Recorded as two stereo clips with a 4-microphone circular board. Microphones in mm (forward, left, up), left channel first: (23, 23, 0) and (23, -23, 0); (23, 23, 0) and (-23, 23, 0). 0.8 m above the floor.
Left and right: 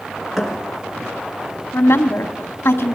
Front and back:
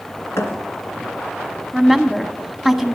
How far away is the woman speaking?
About 1.6 m.